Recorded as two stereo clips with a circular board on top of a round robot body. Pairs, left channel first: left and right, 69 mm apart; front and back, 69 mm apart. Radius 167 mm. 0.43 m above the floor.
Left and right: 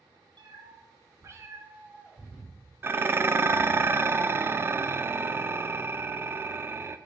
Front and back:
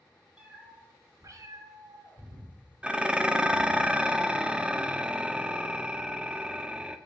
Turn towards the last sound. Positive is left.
turn(degrees=-115)